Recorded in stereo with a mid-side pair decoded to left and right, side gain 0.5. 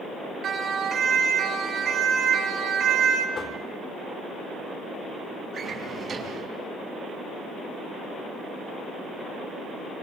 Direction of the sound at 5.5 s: 45° right.